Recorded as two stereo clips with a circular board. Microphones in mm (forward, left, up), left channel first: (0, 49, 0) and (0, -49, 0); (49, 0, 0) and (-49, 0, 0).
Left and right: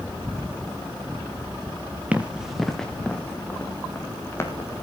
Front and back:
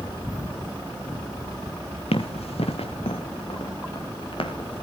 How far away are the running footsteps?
About 2.5 m.